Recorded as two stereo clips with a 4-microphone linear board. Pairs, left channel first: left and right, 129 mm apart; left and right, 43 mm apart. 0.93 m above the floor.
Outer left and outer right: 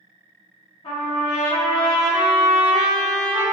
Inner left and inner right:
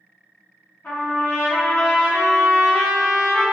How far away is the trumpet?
About 1.0 m.